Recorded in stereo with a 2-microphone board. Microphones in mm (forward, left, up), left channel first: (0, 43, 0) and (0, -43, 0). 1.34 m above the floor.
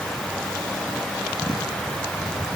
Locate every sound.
Only background noise.